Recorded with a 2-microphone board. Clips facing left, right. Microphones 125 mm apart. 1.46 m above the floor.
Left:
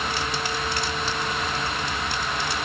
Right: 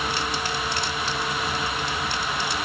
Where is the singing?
No singing in this recording.